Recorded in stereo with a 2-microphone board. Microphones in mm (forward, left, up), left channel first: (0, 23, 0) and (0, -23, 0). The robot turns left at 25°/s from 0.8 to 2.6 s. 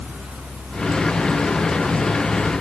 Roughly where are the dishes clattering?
No dishes clattering in this recording.